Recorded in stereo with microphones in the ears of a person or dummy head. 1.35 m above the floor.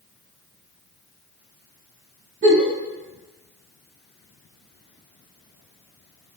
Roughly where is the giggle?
Right.